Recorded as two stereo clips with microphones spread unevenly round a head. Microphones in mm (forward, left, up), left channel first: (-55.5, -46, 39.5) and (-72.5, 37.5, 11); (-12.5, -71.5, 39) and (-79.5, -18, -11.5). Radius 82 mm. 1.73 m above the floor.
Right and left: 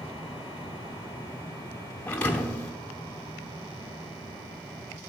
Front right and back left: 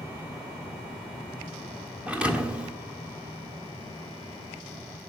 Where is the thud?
100° right, 1.2 m.